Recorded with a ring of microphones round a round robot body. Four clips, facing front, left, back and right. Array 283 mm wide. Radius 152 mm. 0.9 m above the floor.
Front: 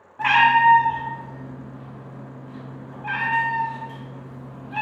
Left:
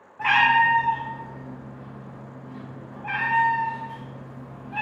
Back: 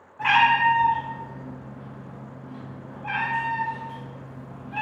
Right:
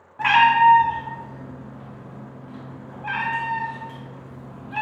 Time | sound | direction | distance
0.2 | a cat meowing | 60° right | 0.5 m